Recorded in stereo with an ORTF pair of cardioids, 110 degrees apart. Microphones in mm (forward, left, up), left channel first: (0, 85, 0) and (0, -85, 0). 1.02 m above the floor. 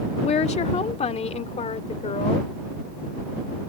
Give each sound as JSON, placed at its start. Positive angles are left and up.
{"t": 0.2, "sound": "a woman speaking", "azimuth_deg": 40}